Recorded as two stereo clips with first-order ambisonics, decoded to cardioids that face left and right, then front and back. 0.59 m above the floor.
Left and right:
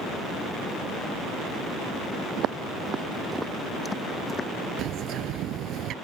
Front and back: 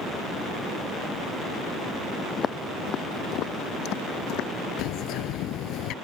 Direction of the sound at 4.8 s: 40° right.